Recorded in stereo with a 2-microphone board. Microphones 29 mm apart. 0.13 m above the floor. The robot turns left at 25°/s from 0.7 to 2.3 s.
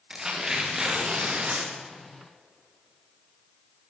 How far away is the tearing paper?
About 5.5 m.